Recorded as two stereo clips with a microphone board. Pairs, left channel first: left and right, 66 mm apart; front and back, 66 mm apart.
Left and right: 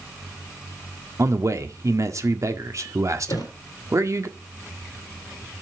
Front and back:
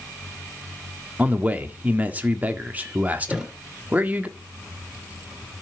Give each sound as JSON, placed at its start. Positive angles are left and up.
{"t": 1.2, "sound": "a man speaking", "azimuth_deg": -115, "distance_m": 1.6}
{"t": 3.3, "sound": "a thud", "azimuth_deg": 100, "distance_m": 3.0}